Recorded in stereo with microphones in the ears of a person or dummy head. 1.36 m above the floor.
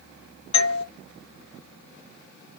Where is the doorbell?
25° left (ahead or behind), 0.8 m.